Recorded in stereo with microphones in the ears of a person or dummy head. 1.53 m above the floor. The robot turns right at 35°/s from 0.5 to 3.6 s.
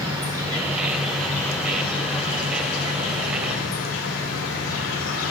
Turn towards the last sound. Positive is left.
turn(degrees=85)